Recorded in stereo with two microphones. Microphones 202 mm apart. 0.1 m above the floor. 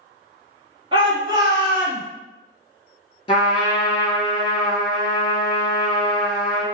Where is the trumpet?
25° left (ahead or behind), 1.3 m.